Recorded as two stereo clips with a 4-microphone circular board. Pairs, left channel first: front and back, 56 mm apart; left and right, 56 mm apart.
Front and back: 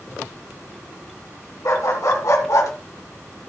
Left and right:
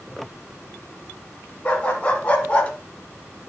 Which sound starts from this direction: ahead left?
A dog barking, at 1.6 s.